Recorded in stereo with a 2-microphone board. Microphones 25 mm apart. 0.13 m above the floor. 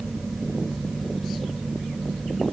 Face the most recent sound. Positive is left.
No sound to turn to.